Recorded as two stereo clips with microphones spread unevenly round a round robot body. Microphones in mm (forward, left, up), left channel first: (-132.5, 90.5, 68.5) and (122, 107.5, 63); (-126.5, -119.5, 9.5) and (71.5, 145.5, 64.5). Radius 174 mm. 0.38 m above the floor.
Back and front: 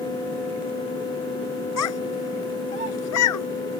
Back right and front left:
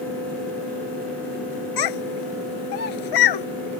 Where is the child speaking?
140° right.